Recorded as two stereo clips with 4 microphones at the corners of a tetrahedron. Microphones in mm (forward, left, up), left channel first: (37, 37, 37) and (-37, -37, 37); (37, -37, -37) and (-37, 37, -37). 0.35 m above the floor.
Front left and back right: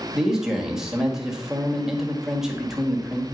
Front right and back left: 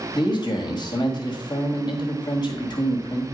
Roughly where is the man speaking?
Ahead right.